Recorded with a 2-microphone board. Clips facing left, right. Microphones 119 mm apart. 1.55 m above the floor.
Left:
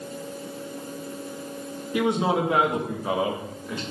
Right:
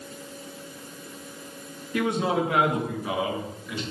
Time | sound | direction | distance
1.9 | a man speaking | 15° left (ahead or behind) | 2 m